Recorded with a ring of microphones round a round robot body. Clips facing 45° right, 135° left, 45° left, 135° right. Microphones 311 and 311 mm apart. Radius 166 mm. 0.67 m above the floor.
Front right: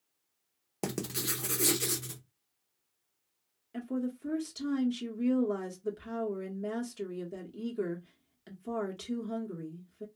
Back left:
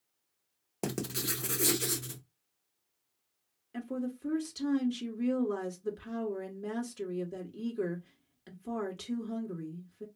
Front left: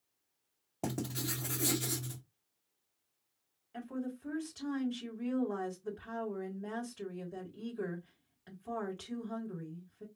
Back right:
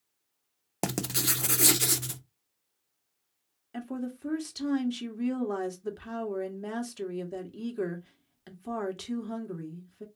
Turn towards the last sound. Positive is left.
turn(degrees=-140)